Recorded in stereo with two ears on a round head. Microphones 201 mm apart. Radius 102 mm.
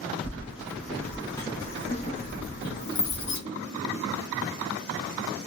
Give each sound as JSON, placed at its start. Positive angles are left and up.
{"t": 0.2, "sound": "keys jangling", "side_deg": -5, "distance_m": 1.2}